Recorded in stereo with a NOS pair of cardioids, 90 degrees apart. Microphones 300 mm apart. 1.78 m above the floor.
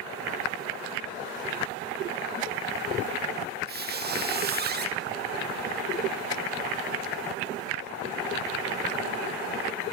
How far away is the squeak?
About 2.5 m.